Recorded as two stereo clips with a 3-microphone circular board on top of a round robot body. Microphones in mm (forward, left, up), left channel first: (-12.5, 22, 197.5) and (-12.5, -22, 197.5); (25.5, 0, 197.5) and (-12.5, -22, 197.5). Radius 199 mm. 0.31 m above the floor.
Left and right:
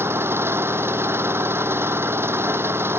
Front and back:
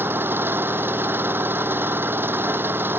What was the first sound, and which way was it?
An engine running, 115° right.